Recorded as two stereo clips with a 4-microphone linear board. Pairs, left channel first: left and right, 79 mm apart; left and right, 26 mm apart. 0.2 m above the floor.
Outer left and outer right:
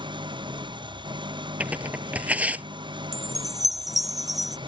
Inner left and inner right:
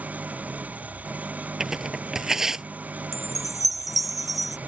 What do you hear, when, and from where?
0.0 s an engine running: 80° right
1.6 s tearing paper: 15° right (ahead or behind)
3.1 s a chime: 5° right (ahead or behind)